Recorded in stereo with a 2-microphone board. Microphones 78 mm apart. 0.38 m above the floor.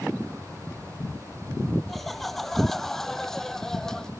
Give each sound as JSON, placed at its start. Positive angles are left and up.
{"t": 1.9, "sound": "laughter", "side_deg": 0}